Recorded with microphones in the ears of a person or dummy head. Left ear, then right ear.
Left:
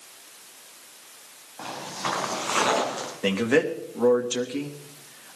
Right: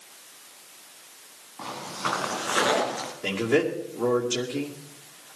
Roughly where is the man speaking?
Left.